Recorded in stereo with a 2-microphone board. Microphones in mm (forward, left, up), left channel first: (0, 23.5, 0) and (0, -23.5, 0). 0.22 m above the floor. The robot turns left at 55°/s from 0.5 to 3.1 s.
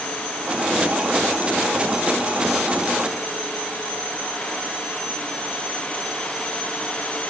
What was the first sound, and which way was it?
Only background noise.